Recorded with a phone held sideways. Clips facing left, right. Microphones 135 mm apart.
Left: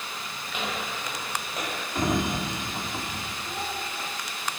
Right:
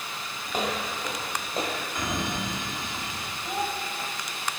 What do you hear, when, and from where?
0.5 s footsteps: 45° right (ahead or behind), 1.8 m; by 1.9 s 25° right (ahead or behind), 1.6 m
1.9 s a sliding door: 35° left (ahead or behind), 1.5 m
3.4 s a child speaking: 45° right (ahead or behind), 4.5 m